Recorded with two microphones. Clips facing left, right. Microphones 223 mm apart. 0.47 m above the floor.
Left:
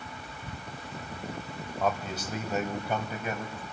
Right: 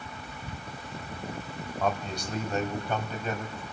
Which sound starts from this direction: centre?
A man speaking, at 1.8 s.